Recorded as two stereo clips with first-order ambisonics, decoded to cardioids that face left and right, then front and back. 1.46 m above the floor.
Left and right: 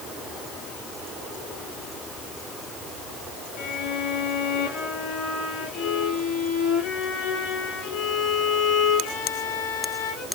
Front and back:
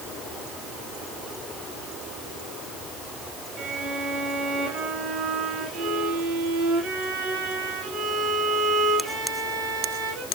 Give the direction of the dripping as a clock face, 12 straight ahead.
No dripping in this recording.